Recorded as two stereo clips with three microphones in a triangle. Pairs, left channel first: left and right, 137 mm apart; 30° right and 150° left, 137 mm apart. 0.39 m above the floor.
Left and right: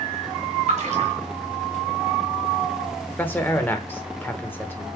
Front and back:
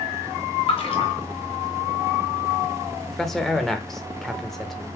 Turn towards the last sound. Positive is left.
turn(degrees=50)